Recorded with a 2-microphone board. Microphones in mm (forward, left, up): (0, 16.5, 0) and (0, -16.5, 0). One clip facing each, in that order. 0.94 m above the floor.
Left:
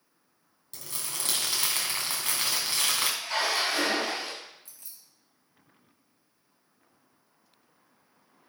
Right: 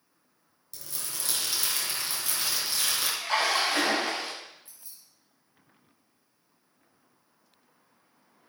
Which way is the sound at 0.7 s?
50° left (ahead or behind).